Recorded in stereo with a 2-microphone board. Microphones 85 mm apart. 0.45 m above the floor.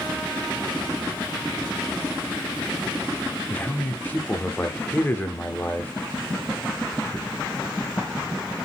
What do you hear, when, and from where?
3.5 s a man speaking: 20° left (ahead or behind), 0.7 m